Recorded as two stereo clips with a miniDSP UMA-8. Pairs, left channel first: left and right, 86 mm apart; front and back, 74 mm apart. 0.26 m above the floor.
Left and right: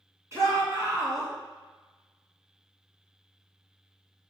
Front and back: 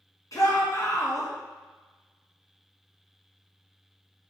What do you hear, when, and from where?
0.3 s a shout: 35° right, 3 m